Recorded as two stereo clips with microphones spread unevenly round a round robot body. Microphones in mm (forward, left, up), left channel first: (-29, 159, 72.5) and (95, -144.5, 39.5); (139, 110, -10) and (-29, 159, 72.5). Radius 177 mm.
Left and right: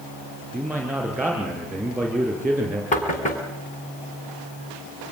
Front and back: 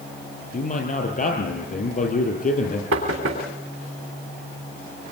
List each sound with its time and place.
0.5 s a man speaking: 15° left, 7.5 m
2.9 s knocking: straight behind, 3 m